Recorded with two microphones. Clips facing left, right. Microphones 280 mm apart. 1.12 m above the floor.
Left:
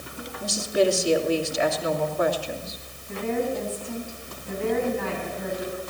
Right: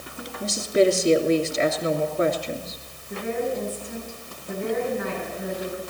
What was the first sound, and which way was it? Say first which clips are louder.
A woman speaking: right 3 dB; 25° right (ahead or behind).